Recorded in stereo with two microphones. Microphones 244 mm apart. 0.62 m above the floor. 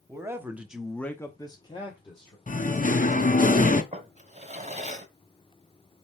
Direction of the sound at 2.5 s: 35° left (ahead or behind).